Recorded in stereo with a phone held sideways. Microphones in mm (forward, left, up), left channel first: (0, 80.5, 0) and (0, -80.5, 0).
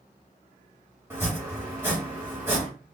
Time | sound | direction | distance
1.1 | chopping | 15° right (ahead or behind) | 2.5 m